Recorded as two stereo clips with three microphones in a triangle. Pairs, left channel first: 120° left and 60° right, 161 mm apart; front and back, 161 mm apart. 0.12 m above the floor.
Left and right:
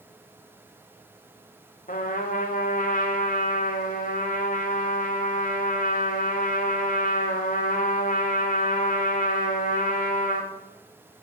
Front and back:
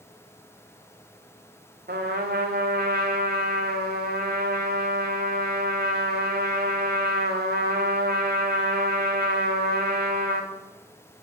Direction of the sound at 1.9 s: 155° left.